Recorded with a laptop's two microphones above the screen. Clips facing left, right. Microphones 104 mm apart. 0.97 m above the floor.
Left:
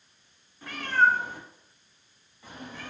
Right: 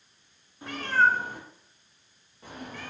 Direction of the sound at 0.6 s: 20° right (ahead or behind).